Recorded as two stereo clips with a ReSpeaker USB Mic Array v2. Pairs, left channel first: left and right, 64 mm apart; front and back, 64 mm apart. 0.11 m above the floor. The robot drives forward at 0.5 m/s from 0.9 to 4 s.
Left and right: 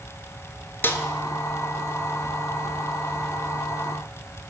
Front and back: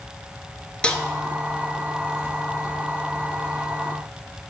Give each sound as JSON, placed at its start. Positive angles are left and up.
{"t": 0.8, "sound": "a snare drum", "azimuth_deg": 65, "distance_m": 0.8}